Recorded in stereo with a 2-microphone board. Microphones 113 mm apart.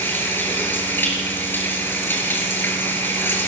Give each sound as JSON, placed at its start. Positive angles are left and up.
{"t": 0.0, "sound": "running water", "side_deg": 20, "distance_m": 4.5}